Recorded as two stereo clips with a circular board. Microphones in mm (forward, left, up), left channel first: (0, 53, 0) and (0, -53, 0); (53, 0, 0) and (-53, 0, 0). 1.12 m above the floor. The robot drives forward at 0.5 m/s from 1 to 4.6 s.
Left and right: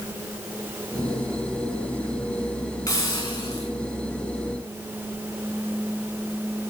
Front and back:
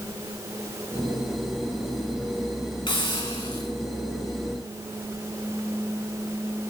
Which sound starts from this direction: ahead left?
A hiss, at 2.9 s.